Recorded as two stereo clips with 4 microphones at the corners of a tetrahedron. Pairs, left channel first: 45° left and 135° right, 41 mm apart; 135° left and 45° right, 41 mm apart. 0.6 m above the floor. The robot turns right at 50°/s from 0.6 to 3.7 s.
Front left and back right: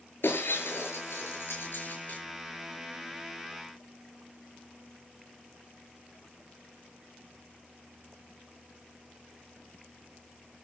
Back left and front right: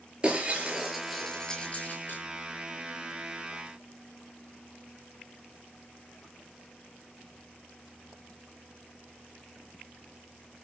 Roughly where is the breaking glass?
Ahead.